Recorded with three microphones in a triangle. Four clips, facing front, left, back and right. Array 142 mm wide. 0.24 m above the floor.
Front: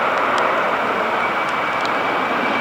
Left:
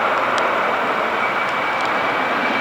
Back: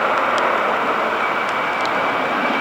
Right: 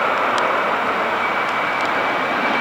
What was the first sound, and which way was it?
Only background noise.